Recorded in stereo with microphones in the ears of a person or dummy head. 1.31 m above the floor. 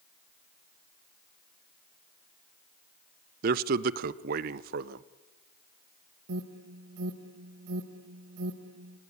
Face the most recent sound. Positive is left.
turn(degrees=-75)  # may be behind; listen again after turning